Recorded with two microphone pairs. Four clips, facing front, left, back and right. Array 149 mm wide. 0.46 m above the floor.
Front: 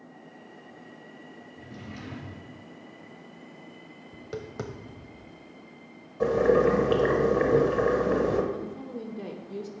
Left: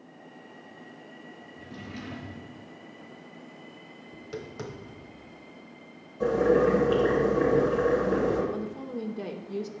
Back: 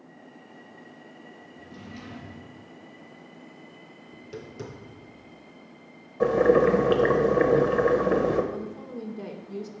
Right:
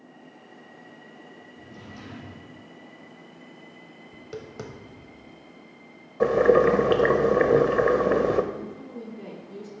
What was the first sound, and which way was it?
A drawer, 45° left.